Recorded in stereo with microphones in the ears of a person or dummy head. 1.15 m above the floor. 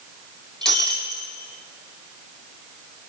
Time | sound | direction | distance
0.6 | breaking glass | centre (ahead or behind) | 3 m